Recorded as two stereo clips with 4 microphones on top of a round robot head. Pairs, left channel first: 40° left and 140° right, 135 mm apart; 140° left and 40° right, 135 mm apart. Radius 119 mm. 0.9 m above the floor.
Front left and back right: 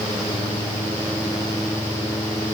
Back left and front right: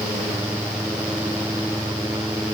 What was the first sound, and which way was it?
Only background noise.